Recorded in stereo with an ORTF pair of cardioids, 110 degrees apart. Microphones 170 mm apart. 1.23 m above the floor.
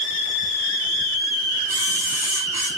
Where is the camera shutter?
15° right, 5.5 m.